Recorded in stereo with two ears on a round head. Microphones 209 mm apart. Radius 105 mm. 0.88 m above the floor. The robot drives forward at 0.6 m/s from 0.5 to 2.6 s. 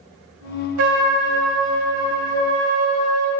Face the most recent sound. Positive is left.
turn(degrees=-80)